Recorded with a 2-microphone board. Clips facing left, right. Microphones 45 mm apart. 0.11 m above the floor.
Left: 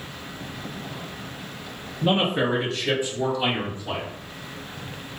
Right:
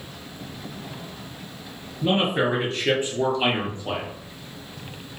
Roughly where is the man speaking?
Centre.